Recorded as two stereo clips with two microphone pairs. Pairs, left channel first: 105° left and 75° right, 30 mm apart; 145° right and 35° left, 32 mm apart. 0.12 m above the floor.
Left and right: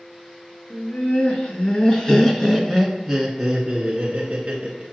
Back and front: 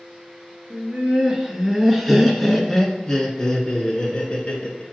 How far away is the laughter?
About 1.6 m.